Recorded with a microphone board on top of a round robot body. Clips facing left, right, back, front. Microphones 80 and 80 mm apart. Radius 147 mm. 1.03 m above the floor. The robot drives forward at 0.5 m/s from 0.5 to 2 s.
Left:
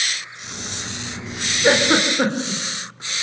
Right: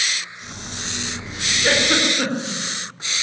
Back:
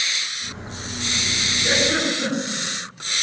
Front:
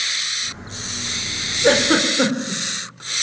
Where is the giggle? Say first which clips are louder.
Left 3 dB, front 6 dB; 30° left, 4 m.